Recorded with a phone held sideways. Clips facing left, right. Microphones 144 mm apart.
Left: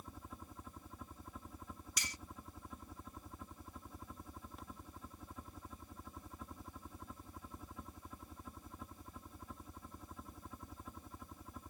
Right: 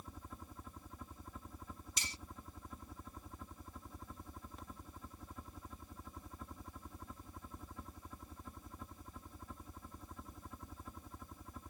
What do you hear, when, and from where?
0.0 s a helicopter: centre (ahead or behind)
2.0 s cutlery clinking: 30° right (ahead or behind)